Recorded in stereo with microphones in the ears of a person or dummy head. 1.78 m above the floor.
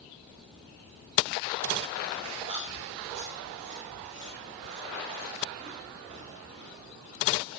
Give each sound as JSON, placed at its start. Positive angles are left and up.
{"t": 2.5, "sound": "chewing", "side_deg": -35, "distance_m": 3.5}